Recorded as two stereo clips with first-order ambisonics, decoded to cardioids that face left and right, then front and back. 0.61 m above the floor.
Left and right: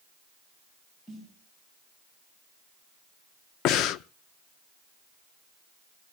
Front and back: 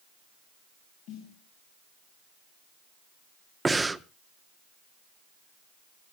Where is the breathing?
100° left, 0.5 m.